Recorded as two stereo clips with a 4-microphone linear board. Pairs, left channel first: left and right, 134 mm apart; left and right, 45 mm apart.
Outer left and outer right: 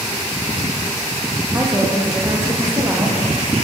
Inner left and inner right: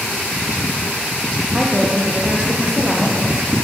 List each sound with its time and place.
1.5 s a woman speaking: 20° right (ahead or behind), 7 m